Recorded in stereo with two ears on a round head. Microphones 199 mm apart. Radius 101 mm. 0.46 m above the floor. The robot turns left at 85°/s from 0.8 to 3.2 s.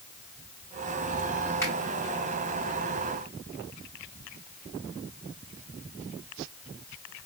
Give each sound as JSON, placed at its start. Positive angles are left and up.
{"t": 1.6, "sound": "a finger snap", "side_deg": 15, "distance_m": 3.0}